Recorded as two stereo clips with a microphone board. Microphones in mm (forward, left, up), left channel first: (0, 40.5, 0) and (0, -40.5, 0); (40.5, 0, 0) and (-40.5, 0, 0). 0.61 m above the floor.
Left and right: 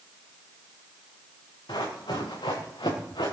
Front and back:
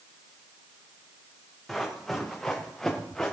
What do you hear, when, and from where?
1.7 s running footsteps: 90° left, 5.5 m; by 3.3 s 80° left, 4 m